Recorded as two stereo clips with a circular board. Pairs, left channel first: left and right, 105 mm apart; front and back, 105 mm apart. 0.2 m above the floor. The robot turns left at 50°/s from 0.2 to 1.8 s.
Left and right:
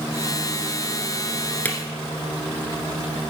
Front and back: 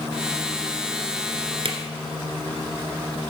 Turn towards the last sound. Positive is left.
turn(degrees=155)